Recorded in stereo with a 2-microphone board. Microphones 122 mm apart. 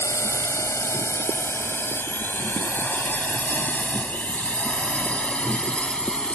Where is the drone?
25° left (ahead or behind); by 6.3 s 10° left (ahead or behind).